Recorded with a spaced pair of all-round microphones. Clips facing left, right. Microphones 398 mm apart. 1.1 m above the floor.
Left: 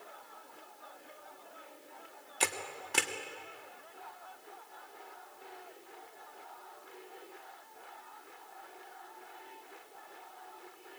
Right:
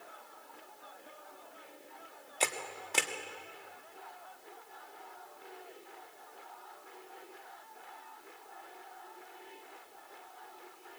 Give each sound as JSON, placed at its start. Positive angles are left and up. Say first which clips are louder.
{"t": 2.4, "sound": "a camera shutter", "louder": "right 1 dB", "side_deg": 25, "distance_m": 1.4}